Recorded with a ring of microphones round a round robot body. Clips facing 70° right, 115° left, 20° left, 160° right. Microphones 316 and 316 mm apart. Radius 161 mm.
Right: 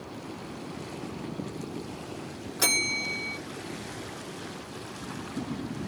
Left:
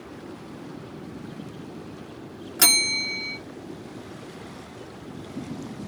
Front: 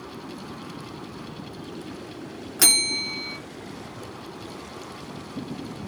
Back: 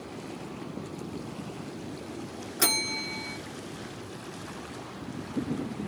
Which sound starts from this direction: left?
A bell, at 2.6 s.